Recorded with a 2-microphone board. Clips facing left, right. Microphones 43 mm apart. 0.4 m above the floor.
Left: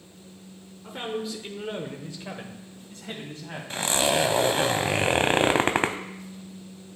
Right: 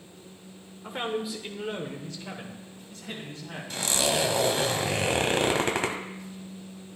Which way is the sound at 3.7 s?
30° left (ahead or behind).